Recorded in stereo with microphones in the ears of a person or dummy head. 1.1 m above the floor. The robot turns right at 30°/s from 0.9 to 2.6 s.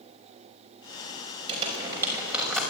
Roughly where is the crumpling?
Right.